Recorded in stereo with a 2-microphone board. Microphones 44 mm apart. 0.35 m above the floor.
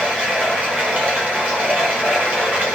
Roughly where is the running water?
Right.